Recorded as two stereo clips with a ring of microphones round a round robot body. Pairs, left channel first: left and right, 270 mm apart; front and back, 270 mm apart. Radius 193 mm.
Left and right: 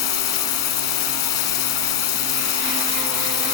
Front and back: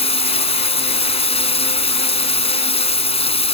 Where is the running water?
70° left.